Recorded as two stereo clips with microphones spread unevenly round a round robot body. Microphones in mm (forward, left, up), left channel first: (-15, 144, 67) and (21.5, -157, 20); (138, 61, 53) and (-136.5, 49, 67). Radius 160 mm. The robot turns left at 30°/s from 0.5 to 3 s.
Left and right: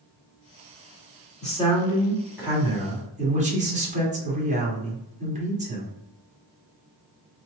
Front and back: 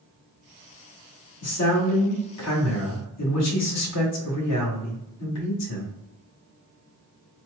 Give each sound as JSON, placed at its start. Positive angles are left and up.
{"t": 1.4, "sound": "a man speaking", "azimuth_deg": 25, "distance_m": 1.7}